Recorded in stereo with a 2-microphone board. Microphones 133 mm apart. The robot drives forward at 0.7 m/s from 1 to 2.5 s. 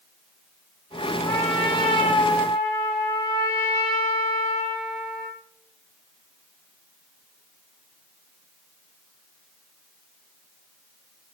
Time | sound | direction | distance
1.2 | a trumpet | 30° left (ahead or behind) | 6 m